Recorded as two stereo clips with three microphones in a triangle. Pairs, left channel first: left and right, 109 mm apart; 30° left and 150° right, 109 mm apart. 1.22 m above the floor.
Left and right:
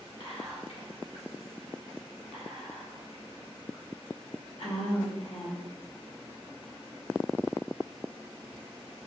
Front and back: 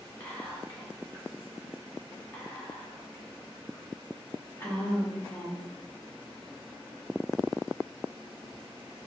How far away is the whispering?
About 1.0 m.